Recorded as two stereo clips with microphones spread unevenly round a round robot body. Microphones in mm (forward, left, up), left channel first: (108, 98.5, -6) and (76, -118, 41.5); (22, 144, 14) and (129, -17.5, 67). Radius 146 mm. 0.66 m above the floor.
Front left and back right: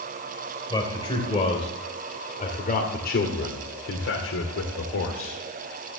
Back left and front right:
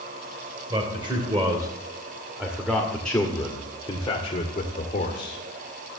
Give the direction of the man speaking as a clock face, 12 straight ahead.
12 o'clock.